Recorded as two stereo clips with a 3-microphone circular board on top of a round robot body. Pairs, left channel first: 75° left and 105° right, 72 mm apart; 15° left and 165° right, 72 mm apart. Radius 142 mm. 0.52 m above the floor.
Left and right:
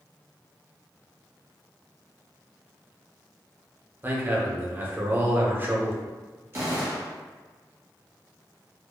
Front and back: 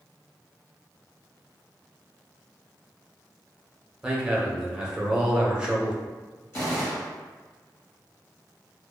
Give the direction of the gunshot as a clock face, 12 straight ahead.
2 o'clock.